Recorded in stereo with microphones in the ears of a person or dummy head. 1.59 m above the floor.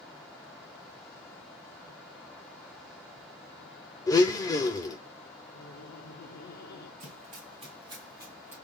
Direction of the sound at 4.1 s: 20° left (ahead or behind).